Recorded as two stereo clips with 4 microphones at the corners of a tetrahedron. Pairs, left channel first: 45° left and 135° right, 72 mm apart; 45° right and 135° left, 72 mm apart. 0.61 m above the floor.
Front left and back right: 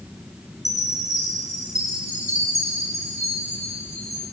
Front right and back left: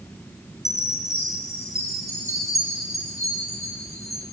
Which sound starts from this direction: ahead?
A chime, at 0.7 s.